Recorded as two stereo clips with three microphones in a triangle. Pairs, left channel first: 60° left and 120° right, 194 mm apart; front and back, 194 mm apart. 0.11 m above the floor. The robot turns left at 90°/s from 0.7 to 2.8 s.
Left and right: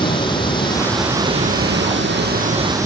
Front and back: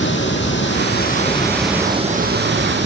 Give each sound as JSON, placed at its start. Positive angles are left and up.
{"t": 0.0, "sound": "running water", "azimuth_deg": -5, "distance_m": 2.5}